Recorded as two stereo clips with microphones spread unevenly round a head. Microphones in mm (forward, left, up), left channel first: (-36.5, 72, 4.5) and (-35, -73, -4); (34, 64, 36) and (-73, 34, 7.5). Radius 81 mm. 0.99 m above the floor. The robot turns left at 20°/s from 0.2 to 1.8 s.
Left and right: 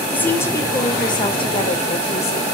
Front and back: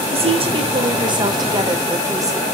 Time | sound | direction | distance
0.1 | a woman speaking | 170° left | 3.5 m